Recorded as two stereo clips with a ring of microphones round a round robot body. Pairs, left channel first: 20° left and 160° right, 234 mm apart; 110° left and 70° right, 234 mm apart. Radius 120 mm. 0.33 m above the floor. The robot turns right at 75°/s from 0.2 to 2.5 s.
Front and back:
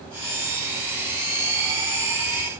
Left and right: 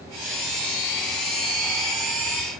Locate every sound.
Only background noise.